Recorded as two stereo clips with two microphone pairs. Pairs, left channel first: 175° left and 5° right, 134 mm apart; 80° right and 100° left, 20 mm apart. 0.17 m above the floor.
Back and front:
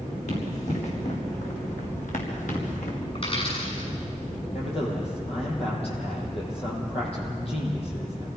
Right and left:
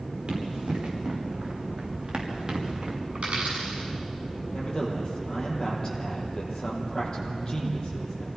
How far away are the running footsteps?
About 7.5 m.